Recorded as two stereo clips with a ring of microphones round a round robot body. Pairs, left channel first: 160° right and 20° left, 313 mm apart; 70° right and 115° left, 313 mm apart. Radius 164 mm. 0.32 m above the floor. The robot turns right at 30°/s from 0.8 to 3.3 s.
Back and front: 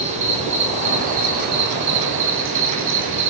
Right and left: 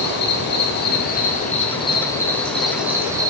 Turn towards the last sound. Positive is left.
turn(degrees=40)